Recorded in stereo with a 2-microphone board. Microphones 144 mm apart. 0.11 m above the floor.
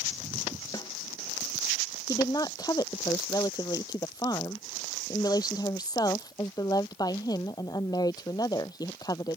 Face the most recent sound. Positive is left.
turn(degrees=25)  # may be behind; listen again after turning